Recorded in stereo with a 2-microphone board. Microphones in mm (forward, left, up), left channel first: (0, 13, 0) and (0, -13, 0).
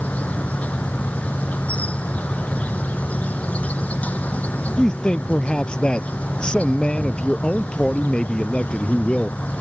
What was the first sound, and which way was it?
An insect, 70° left (ahead or behind).